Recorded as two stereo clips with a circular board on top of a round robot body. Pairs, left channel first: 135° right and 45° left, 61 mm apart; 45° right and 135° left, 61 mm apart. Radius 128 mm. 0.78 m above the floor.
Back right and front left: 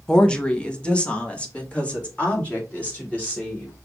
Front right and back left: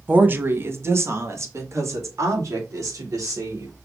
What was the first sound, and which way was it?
A woman speaking, 160° left.